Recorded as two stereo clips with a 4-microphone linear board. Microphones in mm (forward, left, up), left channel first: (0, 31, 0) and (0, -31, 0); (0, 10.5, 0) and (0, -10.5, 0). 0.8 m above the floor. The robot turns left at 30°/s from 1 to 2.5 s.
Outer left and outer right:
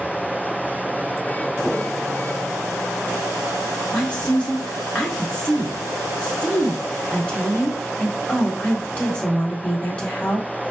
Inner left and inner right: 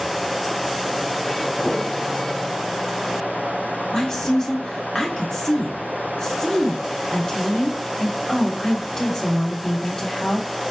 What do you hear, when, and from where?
3.9 s a woman speaking: 20° left (ahead or behind), 1.1 m